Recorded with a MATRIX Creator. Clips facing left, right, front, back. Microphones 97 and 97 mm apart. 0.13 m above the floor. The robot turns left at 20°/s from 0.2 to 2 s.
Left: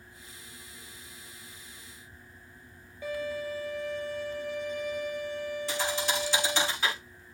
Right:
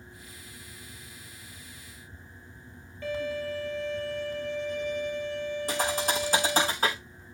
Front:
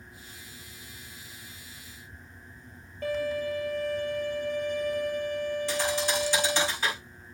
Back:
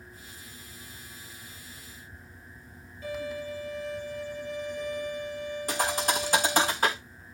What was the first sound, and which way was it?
A violin, 15° left.